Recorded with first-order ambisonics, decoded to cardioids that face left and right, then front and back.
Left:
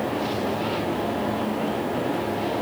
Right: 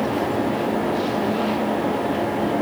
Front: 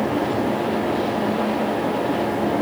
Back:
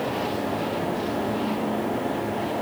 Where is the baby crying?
I don't hear a baby crying.